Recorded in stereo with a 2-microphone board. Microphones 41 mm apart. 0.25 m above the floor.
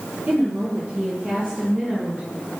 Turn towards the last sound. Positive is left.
turn(degrees=-15)  # may be behind; listen again after turning